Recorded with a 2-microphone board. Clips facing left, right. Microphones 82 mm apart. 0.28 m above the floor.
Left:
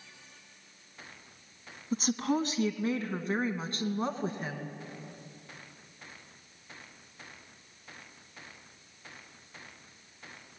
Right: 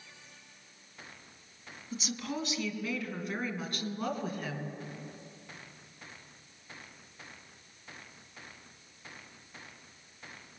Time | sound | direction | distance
1.9 | a woman speaking | 45° left (ahead or behind) | 2.5 m